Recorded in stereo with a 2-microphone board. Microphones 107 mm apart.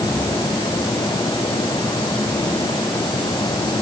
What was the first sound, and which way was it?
Only background noise.